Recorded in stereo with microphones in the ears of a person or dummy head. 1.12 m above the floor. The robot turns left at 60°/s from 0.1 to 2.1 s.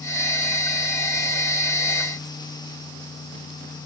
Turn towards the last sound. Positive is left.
No sound to turn to.